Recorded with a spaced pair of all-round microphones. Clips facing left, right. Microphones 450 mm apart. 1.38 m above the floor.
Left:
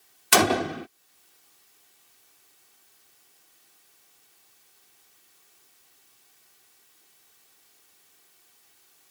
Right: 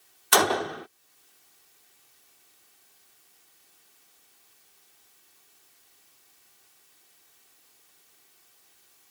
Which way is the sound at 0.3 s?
45° left (ahead or behind).